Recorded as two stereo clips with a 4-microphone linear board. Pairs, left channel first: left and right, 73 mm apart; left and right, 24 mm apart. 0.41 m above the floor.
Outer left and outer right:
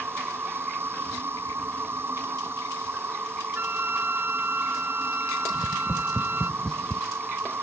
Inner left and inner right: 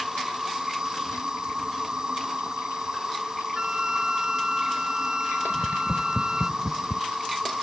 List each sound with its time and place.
0.0 s an insect: 35° right (ahead or behind)
3.5 s a flute: 25° right (ahead or behind)
5.5 s tapping: 5° left (ahead or behind)